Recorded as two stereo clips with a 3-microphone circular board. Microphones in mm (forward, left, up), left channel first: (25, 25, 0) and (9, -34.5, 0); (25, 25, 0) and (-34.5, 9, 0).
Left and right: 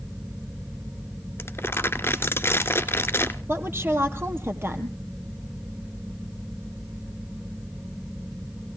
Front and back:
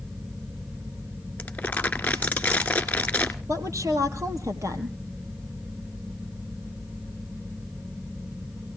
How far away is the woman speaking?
About 3 m.